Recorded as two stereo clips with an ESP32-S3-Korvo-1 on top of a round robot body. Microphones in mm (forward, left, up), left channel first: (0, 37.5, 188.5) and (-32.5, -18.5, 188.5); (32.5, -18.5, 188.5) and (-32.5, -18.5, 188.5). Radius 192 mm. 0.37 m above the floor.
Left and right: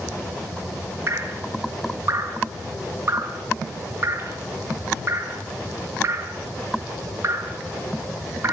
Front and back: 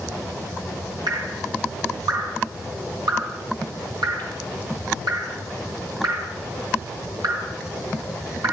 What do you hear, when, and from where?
1.1 s dripping: 175° right, 5 m